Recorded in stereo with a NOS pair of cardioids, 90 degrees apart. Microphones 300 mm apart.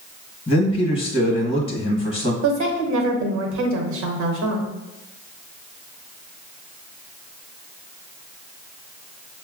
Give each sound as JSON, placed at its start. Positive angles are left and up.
{"t": 0.5, "sound": "a man speaking", "azimuth_deg": 20, "distance_m": 1.0}
{"t": 2.4, "sound": "a woman speaking", "azimuth_deg": -65, "distance_m": 1.0}